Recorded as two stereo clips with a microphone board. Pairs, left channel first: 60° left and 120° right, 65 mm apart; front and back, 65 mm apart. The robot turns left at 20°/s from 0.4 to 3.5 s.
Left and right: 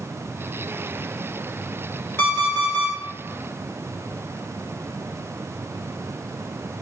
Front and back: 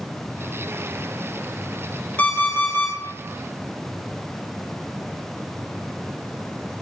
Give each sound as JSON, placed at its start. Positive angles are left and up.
{"t": 2.2, "sound": "an alarm clock", "azimuth_deg": 40, "distance_m": 0.7}